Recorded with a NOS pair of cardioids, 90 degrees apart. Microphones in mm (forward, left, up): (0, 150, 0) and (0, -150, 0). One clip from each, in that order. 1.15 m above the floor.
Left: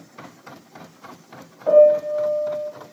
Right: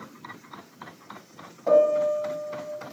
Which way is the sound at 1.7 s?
10° left.